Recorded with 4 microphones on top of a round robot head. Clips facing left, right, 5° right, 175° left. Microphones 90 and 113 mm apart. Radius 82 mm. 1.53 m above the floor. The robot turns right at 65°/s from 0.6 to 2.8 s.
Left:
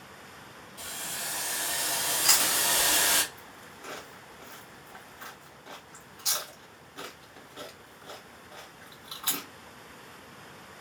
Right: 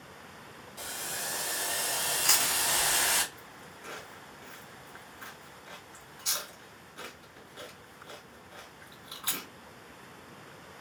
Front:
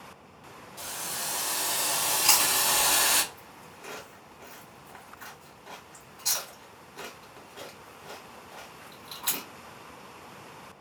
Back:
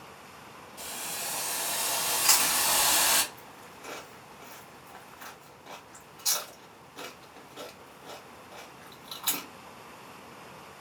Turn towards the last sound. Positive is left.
turn(degrees=90)